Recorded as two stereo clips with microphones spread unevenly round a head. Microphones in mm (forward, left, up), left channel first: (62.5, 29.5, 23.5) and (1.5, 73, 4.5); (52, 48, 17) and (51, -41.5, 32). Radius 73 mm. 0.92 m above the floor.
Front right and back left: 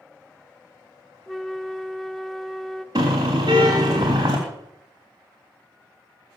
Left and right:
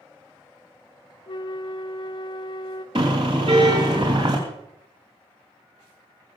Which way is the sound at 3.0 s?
150° right.